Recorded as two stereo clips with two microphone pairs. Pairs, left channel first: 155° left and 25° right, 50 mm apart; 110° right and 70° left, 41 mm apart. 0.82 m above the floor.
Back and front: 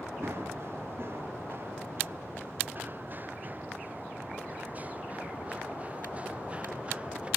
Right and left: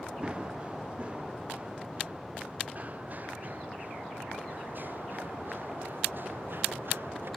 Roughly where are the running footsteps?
Ahead.